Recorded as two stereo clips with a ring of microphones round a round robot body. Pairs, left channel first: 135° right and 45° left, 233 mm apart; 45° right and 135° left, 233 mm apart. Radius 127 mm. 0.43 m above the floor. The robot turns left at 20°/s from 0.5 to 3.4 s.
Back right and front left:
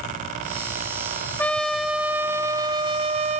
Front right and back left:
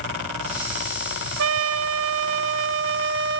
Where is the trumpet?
145° left, 1.2 m; by 3.4 s 105° left, 1.2 m.